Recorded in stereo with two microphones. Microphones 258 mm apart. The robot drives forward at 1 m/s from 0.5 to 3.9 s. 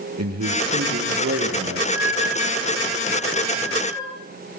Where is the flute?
5° right (ahead or behind), 8 m.